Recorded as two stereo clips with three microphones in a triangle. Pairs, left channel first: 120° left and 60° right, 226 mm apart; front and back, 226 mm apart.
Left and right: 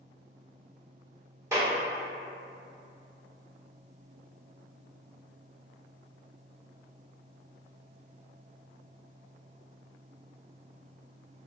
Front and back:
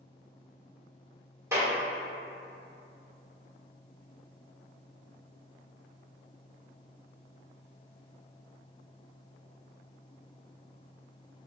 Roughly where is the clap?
Behind right.